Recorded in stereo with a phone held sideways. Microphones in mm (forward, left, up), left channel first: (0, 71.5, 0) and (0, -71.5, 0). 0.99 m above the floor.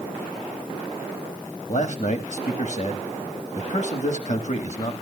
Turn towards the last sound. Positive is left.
turn(degrees=55)  # may be behind; listen again after turning